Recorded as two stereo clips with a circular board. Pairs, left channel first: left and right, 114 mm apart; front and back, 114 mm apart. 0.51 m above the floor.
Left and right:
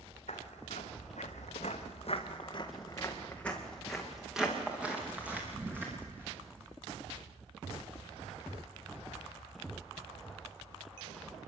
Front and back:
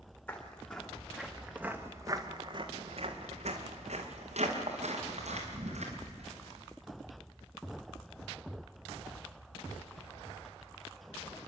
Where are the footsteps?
75° left, 3.5 m; by 6.7 s 160° right, 6.5 m.